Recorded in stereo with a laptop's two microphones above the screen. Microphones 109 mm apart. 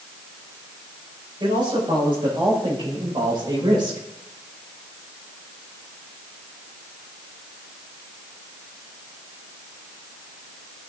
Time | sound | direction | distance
1.4 | a man speaking | 45° right (ahead or behind) | 6 m